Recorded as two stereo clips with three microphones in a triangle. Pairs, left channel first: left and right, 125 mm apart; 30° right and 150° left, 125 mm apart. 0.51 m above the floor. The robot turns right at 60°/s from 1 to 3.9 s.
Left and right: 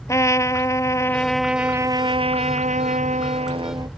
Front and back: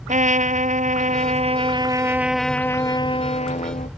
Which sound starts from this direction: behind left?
A trumpet, at 0.1 s.